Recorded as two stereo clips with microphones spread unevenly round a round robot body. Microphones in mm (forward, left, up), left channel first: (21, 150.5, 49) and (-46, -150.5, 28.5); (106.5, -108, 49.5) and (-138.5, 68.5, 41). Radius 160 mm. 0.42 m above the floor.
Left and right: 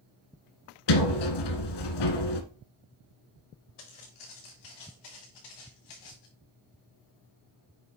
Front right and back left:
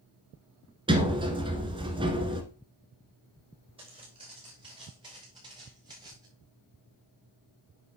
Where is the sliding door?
70° left, 1.5 m.